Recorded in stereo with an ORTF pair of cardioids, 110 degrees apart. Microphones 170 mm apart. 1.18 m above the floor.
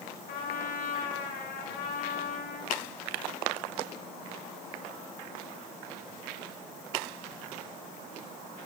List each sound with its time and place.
0.3 s a trumpet: 65° left, 3 m